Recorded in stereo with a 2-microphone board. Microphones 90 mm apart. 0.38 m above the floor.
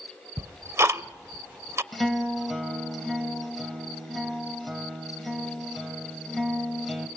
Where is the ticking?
30° right (ahead or behind), 0.6 m.